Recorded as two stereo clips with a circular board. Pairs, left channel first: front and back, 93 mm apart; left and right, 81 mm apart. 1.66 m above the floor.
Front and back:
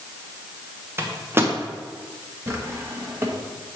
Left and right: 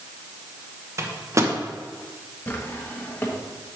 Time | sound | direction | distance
1.0 | a microwave | 125° right | 1.0 m
2.5 | a drawer | 140° left | 0.9 m